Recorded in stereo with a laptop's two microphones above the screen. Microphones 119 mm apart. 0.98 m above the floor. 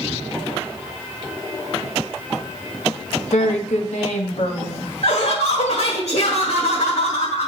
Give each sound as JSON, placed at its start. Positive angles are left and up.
{"t": 3.3, "sound": "a woman speaking", "side_deg": 70, "distance_m": 1.0}
{"t": 5.0, "sound": "laughter", "side_deg": 65, "distance_m": 1.5}